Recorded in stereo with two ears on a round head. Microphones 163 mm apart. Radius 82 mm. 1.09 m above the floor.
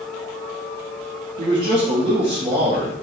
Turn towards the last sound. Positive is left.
turn(degrees=-45)  # may be behind; listen again after turning